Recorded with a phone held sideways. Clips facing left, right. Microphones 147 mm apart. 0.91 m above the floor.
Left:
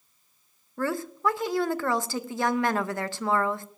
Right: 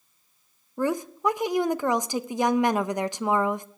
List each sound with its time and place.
0.8 s a woman speaking: 15° right (ahead or behind), 0.5 m